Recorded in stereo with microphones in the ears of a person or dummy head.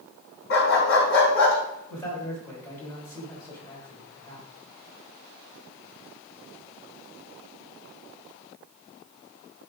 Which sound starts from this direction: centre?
A man speaking, at 1.9 s.